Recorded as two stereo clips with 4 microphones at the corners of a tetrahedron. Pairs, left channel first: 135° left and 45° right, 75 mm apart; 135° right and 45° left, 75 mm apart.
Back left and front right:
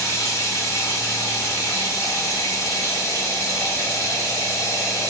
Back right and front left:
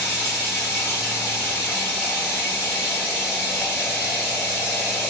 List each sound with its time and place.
0.0 s running water: 115° left, 1.5 m